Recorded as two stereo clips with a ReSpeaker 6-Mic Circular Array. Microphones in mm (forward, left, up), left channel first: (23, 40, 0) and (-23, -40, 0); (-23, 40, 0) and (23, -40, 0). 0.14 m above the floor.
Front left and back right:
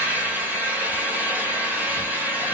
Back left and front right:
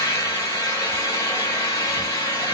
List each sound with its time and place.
0.0 s an engine running: 170° left, 1.8 m